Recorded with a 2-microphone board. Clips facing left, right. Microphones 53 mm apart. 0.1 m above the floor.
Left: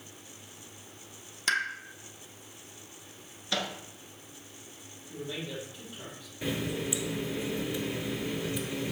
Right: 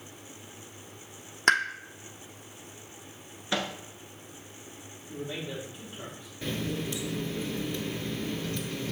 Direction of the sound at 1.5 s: 60° right (ahead or behind).